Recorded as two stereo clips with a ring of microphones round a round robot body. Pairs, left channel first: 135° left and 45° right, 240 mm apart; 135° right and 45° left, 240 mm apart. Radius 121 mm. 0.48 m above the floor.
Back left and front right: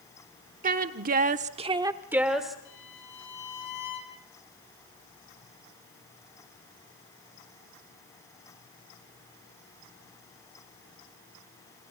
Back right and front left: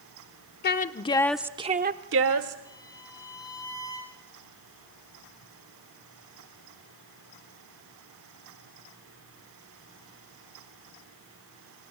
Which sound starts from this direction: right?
A woman speaking, at 0.6 s.